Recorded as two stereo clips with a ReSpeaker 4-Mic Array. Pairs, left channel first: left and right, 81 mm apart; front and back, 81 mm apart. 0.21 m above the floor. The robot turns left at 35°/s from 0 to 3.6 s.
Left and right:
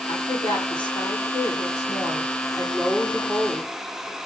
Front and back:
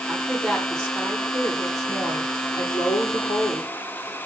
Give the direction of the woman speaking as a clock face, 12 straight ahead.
8 o'clock.